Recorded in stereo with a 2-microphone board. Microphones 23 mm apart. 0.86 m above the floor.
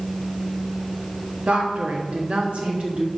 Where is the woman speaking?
65° right (ahead or behind), 1.2 m; by 3.1 s 55° right (ahead or behind), 1.6 m.